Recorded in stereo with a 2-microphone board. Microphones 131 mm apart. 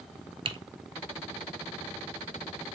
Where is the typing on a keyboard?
45° right (ahead or behind), 0.9 m.